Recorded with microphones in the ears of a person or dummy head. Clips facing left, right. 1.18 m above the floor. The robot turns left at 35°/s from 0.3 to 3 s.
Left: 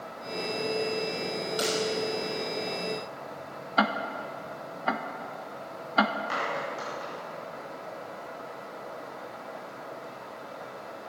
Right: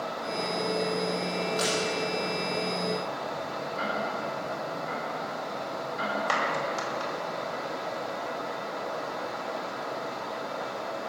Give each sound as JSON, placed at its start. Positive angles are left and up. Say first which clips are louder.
{"t": 1.6, "sound": "breaking glass", "louder": "left 3 dB", "side_deg": 15, "distance_m": 5.5}
{"t": 3.8, "sound": "ticking", "louder": "left 5 dB", "side_deg": 80, "distance_m": 0.9}
{"t": 6.3, "sound": "a clap", "louder": "right 3 dB", "side_deg": -80, "distance_m": 4.0}